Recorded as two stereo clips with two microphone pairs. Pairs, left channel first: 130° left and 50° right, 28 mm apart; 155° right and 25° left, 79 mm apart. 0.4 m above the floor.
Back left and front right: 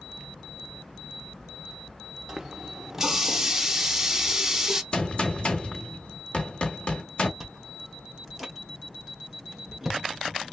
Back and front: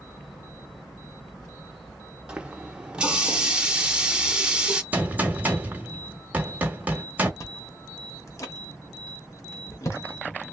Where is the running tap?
15° right, 0.6 m.